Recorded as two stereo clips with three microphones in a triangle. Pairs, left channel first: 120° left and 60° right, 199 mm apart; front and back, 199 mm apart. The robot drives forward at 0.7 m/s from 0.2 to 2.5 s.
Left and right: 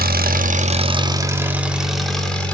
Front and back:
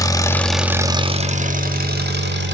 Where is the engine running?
70° right, 0.8 m; by 2.5 s 155° right, 1.6 m.